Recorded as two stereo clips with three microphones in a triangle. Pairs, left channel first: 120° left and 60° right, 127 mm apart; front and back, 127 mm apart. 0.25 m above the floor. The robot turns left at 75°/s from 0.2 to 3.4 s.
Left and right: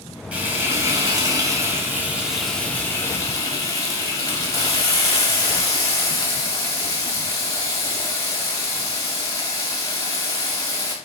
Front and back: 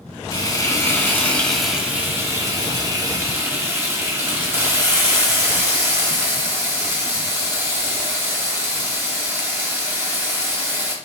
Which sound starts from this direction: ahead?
Frying, at 0.3 s.